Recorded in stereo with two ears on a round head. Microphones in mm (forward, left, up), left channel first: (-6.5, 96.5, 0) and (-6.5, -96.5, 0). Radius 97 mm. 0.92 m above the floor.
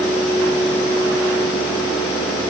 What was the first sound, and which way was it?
Only background noise.